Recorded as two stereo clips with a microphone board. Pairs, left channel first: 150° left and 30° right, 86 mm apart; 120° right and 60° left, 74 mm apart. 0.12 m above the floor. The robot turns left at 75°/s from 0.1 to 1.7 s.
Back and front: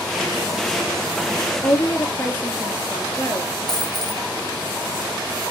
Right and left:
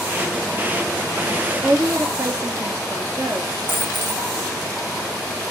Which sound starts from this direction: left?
A woman speaking, at 1.6 s.